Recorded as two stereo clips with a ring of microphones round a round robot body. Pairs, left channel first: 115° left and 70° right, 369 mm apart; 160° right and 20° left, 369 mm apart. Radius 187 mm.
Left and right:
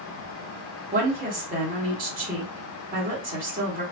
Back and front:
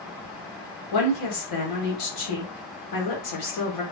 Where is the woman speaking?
130° right, 1.5 m.